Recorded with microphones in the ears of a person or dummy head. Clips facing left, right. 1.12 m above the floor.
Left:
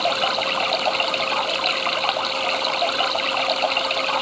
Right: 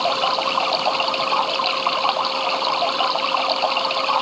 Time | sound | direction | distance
0.0 | running water | 20° left (ahead or behind) | ?